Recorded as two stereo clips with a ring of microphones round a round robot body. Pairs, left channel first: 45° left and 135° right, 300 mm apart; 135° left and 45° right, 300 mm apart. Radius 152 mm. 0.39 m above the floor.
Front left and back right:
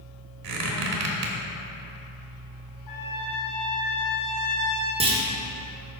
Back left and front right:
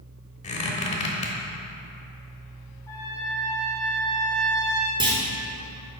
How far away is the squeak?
About 1.2 m.